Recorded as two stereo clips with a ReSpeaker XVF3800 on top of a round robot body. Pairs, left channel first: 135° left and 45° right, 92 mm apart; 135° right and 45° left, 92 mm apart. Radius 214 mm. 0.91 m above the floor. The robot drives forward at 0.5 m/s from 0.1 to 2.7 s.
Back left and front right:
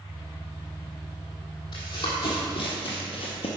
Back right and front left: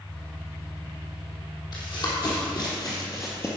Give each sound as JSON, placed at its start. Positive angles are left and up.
{"t": 1.7, "sound": "running footsteps", "azimuth_deg": 180, "distance_m": 2.5}